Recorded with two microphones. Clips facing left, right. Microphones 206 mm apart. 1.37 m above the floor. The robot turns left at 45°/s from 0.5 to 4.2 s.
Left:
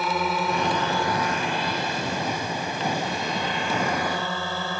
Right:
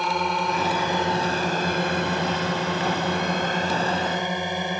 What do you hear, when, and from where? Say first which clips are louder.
0.0 s a drone: even; 5° left (ahead or behind); by 4.8 s 15° right (ahead or behind)